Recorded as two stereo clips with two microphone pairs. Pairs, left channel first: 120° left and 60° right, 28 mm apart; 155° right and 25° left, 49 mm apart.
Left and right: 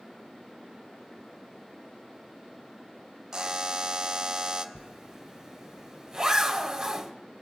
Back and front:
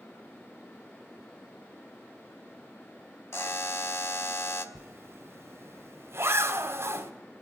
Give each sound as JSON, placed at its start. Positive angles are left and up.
{"t": 3.3, "sound": "a buzzer", "azimuth_deg": -130, "distance_m": 0.9}
{"t": 4.8, "sound": "a zipper", "azimuth_deg": 10, "distance_m": 1.3}